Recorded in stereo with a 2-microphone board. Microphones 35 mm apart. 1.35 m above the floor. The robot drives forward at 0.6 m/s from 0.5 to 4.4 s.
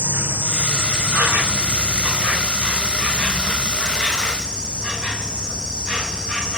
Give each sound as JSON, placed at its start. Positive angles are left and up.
{"t": 0.0, "sound": "an insect", "side_deg": -70, "distance_m": 1.1}